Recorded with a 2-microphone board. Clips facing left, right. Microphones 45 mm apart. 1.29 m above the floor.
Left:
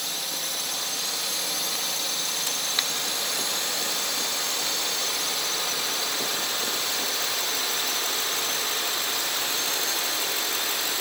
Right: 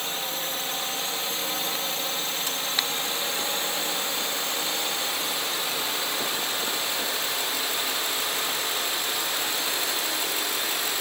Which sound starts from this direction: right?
A drone, at 0.0 s.